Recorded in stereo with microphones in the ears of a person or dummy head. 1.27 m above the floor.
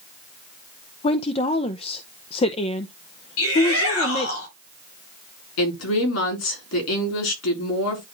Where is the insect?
I don't hear an insect.